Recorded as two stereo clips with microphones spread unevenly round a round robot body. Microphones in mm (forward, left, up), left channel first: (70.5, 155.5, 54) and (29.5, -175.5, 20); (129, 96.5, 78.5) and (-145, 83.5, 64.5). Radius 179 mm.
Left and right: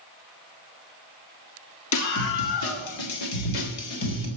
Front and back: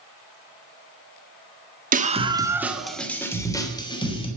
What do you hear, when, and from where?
1.9 s a scream: 130° left, 2.0 m; by 4.3 s 75° left, 4.5 m